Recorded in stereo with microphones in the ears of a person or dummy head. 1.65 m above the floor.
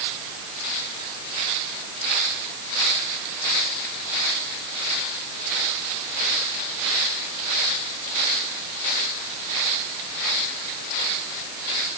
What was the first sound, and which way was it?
Only background noise.